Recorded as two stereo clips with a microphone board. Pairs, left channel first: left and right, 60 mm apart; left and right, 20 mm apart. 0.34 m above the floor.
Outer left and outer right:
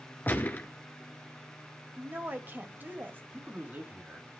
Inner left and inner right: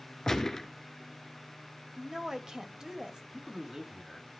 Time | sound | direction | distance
0.3 | a gunshot | 25° left (ahead or behind) | 1.5 m
2.0 | a woman speaking | 30° right (ahead or behind) | 1.7 m
3.3 | a man speaking | 25° right (ahead or behind) | 3.5 m